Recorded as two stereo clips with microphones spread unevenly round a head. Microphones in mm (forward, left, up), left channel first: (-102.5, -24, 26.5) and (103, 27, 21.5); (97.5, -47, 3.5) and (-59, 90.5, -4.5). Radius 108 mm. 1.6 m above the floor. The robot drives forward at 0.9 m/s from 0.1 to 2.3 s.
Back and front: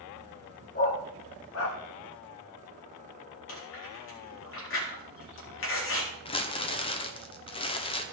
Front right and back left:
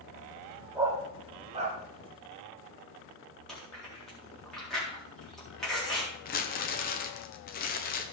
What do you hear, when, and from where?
0.8 s a dog barking: 145° right, 1.2 m; by 1.8 s 165° right, 1.9 m
3.5 s chewing: 130° right, 4 m
6.2 s crumpling: 95° right, 1.0 m